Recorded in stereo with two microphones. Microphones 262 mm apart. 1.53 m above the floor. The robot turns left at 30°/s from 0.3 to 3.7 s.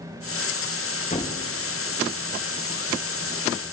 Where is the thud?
30° left (ahead or behind), 0.9 m; by 1.4 s 25° left (ahead or behind), 0.9 m.